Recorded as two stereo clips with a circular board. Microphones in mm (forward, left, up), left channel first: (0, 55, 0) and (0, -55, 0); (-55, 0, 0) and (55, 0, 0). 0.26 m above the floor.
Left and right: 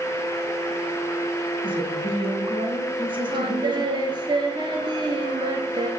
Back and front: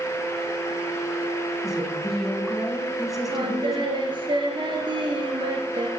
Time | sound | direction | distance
1.6 | a woman speaking | 85° right | 1.9 m
3.3 | singing | 40° right | 1.7 m